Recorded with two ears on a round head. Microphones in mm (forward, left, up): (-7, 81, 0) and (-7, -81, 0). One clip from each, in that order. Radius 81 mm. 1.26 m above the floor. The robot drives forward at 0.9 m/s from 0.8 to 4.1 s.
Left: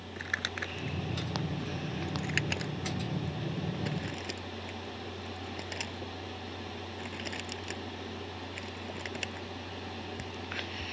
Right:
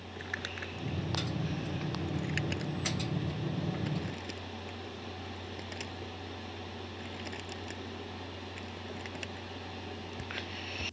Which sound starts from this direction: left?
Crumpling, at 0.2 s.